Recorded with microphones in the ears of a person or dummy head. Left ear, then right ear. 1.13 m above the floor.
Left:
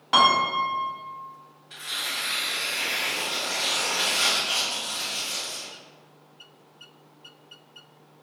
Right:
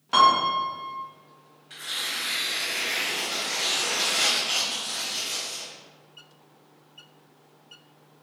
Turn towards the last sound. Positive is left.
turn(degrees=-25)  # may be behind; listen again after turning